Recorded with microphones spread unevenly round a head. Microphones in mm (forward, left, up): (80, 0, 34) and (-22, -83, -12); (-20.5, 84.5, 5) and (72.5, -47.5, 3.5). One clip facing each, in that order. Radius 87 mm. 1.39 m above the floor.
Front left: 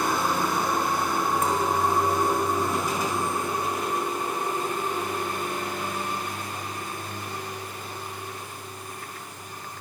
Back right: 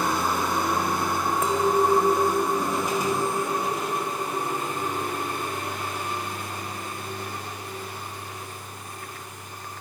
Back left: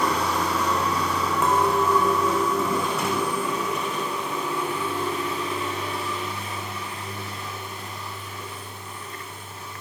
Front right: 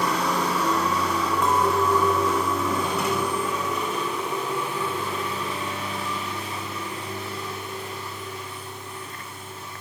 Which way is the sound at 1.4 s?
150° right.